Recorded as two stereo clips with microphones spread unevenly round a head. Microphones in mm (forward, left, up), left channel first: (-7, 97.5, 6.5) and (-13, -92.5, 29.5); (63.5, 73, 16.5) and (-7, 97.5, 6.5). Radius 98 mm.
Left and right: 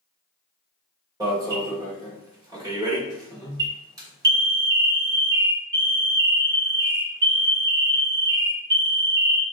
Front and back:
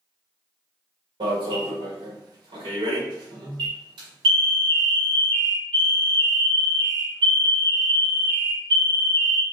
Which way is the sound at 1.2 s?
160° right.